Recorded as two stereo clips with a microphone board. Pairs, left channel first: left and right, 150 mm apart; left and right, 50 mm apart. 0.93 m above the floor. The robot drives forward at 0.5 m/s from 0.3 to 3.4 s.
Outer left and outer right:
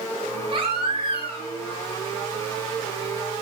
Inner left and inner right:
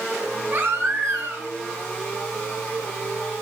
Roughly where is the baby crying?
Right.